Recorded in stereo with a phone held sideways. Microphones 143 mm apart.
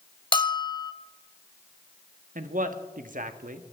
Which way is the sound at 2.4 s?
70° right (ahead or behind).